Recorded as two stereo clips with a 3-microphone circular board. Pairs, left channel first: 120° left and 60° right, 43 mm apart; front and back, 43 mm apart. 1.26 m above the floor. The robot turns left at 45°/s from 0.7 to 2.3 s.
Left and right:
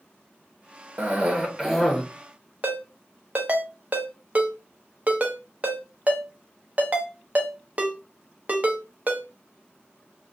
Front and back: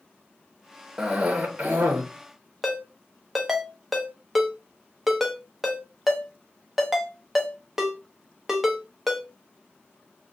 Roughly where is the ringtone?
Right.